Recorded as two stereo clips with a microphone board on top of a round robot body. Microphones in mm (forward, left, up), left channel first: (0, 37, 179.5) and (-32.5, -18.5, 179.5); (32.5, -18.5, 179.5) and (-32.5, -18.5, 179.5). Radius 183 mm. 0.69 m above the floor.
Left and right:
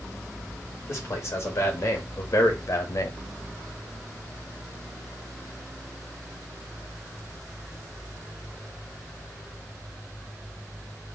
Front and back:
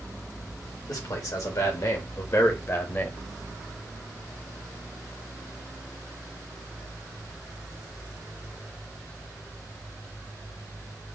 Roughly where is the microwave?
No microwave in this recording.